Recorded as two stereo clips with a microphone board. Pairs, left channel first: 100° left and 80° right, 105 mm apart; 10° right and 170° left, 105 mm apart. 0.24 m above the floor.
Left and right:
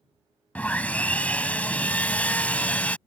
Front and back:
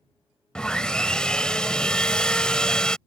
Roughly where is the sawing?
Ahead left.